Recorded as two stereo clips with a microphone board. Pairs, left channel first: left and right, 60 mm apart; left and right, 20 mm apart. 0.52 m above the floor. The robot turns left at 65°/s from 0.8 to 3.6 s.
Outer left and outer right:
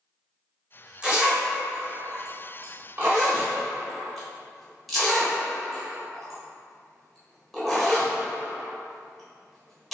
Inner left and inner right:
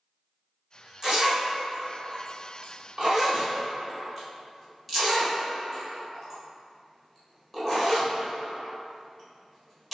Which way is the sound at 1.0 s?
15° right (ahead or behind).